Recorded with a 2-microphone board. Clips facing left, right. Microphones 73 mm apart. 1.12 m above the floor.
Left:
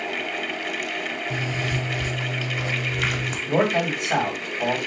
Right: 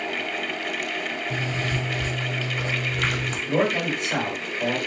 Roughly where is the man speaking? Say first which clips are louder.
Left 2 dB; left.